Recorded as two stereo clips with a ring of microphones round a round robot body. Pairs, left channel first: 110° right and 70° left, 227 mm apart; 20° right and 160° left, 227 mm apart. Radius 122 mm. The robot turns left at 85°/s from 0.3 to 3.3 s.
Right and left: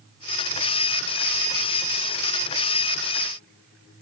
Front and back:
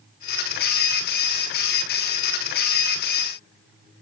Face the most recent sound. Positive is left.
No sound to turn to.